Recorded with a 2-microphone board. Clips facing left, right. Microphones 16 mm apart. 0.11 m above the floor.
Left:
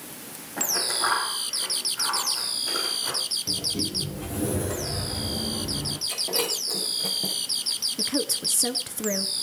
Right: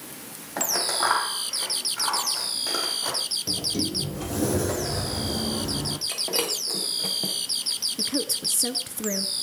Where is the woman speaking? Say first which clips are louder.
Even; 5° left (ahead or behind), 1.3 m.